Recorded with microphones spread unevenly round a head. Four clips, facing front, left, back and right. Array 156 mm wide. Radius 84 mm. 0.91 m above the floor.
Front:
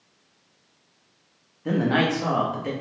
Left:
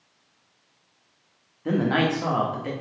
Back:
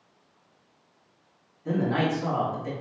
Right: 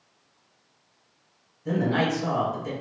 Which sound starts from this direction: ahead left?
A man speaking, at 1.6 s.